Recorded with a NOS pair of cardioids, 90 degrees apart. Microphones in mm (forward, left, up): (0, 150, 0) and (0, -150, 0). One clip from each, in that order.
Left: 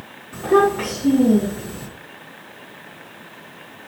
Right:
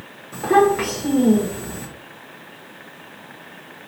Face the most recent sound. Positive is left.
turn(degrees=-40)